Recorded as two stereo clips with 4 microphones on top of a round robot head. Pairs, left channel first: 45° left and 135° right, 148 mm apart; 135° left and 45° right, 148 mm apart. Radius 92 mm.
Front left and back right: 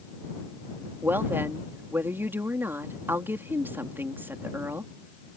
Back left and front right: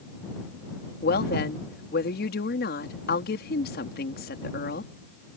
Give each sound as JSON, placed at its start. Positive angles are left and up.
{"t": 1.0, "sound": "a woman speaking", "azimuth_deg": 150}